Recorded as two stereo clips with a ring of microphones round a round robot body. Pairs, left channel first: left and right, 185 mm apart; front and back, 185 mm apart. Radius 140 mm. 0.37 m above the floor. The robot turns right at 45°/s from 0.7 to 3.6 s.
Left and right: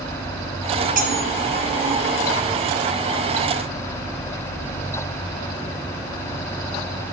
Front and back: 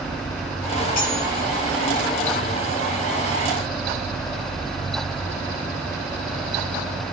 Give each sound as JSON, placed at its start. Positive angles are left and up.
{"t": 1.0, "sound": "cutlery clinking", "azimuth_deg": -45, "distance_m": 1.9}